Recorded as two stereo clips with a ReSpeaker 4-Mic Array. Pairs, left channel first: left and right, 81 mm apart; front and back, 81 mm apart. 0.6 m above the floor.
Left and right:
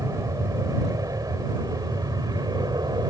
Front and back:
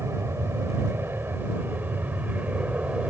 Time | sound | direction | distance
0.0 | an aircraft | 130° right | ?